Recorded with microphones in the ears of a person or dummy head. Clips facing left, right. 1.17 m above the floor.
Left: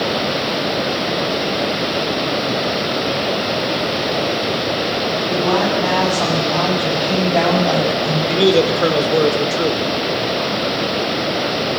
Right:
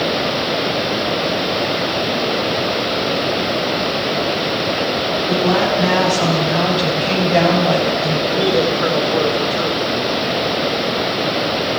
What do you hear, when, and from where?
5.3 s a woman speaking: 30° right (ahead or behind), 10 m; by 8.2 s 35° right (ahead or behind), 7.5 m
8.3 s a man speaking: 35° left (ahead or behind), 3.5 m